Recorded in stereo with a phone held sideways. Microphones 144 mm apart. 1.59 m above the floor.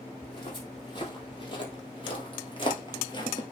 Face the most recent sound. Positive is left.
turn(degrees=30)  # may be behind; listen again after turning